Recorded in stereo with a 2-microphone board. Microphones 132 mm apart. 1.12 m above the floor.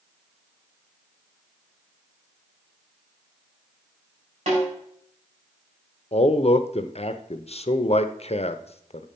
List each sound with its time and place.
4.5 s a snare drum: 55° right (ahead or behind), 4.5 m
6.1 s a man speaking: 50° left (ahead or behind), 0.6 m